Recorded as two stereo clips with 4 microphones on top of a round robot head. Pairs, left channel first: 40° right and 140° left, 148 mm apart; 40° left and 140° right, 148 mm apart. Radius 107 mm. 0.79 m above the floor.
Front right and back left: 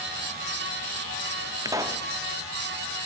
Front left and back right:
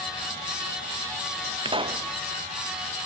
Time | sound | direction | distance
1.6 | a pop | 165° right | 1.0 m